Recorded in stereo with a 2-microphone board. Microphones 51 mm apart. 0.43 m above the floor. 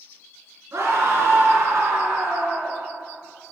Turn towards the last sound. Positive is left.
turn(degrees=-75)  # may be behind; listen again after turning